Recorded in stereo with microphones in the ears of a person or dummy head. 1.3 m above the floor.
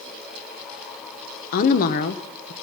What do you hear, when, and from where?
1.5 s a woman speaking: 45° left (ahead or behind), 1.0 m